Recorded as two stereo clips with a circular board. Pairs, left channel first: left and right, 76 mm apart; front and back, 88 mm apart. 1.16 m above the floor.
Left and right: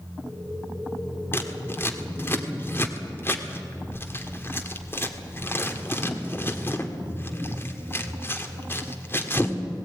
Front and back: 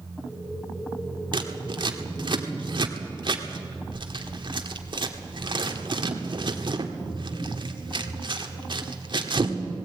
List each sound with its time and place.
1.3 s scissors: 150° left, 1.6 m